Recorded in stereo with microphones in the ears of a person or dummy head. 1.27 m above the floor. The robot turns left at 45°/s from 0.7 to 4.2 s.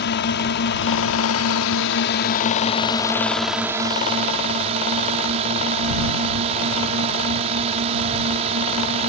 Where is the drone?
120° left; by 9.1 s 35° right.